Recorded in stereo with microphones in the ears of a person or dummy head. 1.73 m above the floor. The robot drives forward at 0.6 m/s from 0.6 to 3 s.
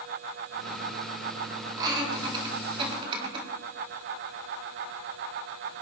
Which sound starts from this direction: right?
Laughter, at 1.8 s.